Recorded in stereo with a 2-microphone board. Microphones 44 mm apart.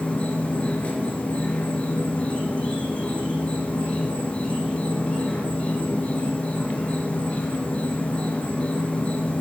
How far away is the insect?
About 1.6 m.